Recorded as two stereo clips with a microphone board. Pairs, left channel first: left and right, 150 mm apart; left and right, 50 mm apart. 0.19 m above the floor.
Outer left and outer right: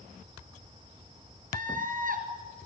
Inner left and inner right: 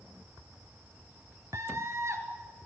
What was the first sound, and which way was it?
A scream, 60° right (ahead or behind).